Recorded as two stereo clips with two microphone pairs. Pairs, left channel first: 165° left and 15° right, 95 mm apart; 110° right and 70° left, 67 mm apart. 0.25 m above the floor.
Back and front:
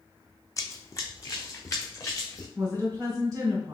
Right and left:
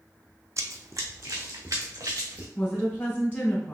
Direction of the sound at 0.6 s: 110° left.